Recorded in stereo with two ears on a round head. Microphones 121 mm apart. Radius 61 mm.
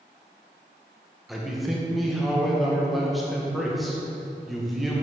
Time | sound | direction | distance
1.3 | a man speaking | centre (ahead or behind) | 0.8 m